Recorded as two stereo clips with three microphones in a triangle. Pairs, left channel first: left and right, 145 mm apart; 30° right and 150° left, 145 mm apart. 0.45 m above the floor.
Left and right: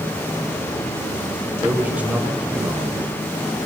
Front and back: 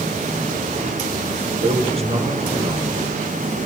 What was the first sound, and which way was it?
A man speaking, 170° right.